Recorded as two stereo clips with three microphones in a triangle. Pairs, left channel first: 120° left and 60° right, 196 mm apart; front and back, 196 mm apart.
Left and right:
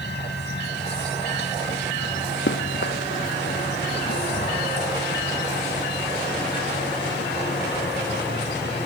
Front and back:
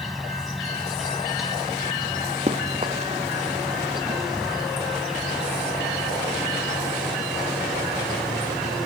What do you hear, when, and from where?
0.0 s an insect: 90° left
2.5 s running footsteps: 125° left